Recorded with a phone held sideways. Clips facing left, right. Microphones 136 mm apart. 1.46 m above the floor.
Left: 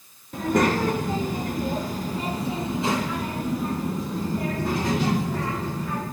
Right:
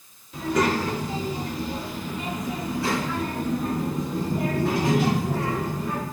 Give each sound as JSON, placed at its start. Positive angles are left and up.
{"t": 0.3, "sound": "a child speaking", "side_deg": 55, "distance_m": 1.3}